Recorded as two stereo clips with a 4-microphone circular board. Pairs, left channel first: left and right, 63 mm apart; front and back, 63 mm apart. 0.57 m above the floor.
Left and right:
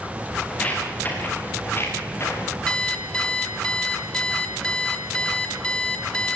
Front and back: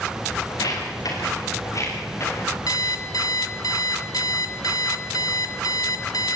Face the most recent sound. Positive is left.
turn(degrees=15)